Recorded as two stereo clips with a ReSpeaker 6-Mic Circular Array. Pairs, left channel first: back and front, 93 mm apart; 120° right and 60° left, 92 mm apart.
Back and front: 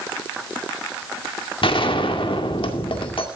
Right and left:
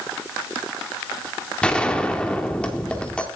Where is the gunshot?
160° left, 1.9 m.